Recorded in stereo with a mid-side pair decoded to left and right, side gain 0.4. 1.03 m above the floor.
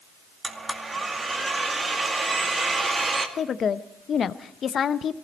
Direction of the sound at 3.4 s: 55° left.